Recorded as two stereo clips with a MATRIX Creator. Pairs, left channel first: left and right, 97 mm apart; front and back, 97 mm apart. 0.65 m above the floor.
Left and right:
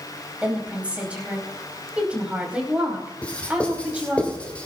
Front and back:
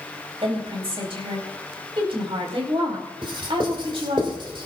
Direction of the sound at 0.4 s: 170° right.